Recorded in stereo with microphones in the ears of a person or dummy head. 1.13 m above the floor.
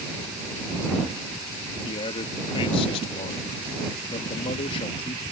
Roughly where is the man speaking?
Left.